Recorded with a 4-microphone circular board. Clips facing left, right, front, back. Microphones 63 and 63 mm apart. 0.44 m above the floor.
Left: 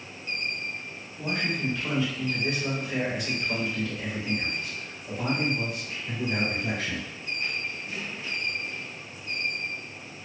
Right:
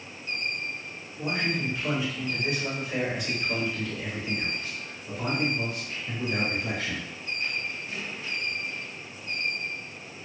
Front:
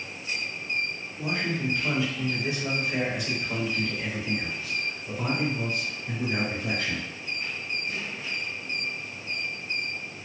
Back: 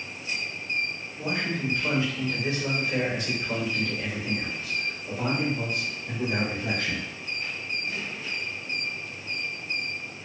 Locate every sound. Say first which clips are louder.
1.2 s a man speaking: even, even; 130° right, 1.5 m; by 7.1 s 150° left, 3.5 m